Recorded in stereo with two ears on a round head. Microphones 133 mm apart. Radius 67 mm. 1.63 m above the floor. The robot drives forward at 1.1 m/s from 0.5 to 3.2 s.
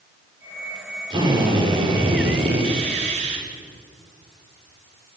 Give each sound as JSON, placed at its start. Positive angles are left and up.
{"t": 1.1, "sound": "a drill", "side_deg": -30, "distance_m": 6.5}